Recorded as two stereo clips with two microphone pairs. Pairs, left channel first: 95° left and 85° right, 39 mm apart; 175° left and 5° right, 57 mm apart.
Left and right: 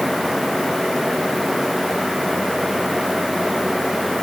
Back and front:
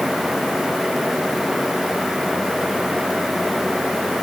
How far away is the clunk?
I don't hear a clunk.